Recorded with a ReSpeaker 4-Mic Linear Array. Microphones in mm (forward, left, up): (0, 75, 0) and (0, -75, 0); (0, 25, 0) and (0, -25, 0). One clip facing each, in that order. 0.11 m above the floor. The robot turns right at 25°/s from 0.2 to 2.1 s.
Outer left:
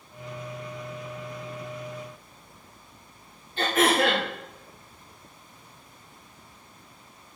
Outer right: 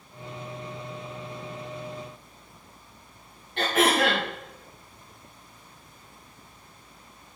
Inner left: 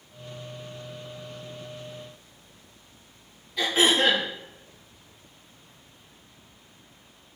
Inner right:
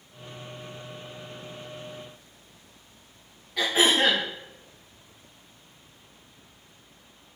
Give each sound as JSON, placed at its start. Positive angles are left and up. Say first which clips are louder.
{"t": 3.6, "sound": "throat clearing", "louder": "even, even", "side_deg": -65, "distance_m": 4.0}